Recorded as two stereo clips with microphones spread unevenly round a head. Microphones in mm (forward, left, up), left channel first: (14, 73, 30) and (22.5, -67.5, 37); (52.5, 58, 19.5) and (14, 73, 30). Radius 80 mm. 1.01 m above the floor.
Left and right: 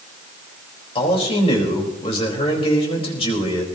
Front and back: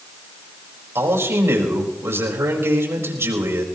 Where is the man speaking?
145° left, 4.5 m.